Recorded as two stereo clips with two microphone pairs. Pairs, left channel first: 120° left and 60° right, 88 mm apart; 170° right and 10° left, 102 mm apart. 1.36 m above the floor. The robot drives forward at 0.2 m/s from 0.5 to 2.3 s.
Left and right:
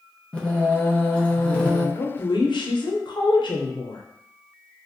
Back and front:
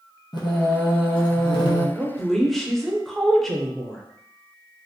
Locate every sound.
0.3 s singing: 165° right, 0.6 m; by 1.9 s 170° right, 0.8 m
1.9 s a woman speaking: 90° left, 0.5 m; by 4.0 s 95° left, 0.5 m